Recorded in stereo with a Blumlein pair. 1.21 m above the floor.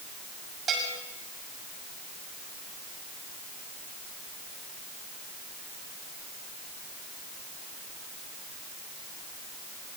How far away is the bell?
About 6.5 m.